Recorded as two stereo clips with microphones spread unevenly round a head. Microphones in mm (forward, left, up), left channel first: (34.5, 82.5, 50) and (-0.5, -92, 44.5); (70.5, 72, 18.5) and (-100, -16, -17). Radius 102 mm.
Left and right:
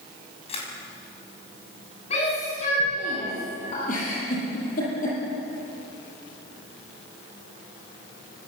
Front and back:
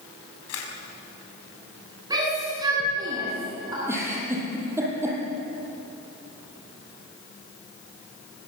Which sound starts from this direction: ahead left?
A camera shutter, at 0.5 s.